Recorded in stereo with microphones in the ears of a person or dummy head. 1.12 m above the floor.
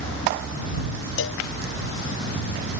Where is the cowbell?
60° left (ahead or behind).